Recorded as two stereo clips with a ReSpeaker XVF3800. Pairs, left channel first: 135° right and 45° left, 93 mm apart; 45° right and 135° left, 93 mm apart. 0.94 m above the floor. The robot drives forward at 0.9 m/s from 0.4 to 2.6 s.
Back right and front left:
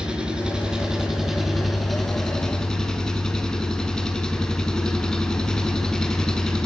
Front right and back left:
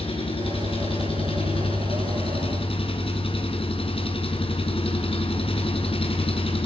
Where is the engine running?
35° right, 5.5 m; by 6.7 s 50° right, 4 m.